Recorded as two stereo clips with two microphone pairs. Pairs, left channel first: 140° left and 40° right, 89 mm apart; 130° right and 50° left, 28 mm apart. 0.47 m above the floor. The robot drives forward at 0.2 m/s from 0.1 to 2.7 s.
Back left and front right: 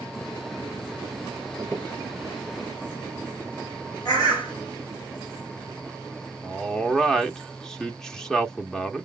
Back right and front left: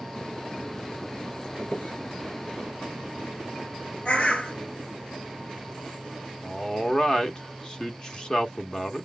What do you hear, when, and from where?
1.6 s a squeak: 155° right, 3 m
4.0 s a bird: straight behind, 3 m
6.4 s a man speaking: 140° right, 0.7 m